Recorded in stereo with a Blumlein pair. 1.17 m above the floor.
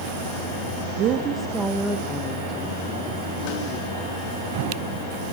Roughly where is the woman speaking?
Ahead right.